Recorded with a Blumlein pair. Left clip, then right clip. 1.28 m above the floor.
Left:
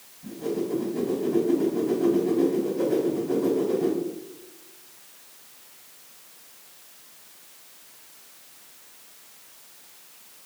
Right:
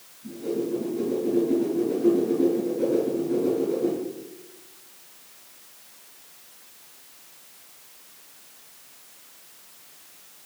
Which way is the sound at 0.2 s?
25° left.